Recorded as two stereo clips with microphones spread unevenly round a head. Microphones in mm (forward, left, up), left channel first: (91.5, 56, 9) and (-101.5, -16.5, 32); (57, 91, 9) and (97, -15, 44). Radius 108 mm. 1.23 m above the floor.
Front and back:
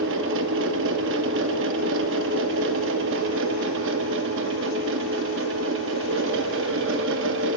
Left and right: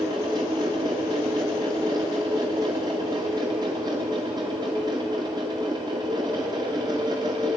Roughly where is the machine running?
Behind right.